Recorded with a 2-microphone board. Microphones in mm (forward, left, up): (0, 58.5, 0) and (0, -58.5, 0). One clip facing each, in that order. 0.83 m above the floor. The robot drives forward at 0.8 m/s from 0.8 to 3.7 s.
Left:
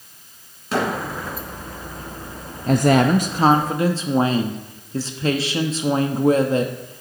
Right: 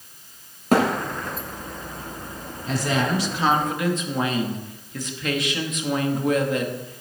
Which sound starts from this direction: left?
A woman speaking, at 2.7 s.